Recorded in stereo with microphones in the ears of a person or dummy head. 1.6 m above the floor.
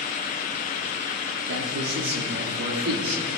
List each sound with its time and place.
1.5 s a man speaking: 80° right, 3 m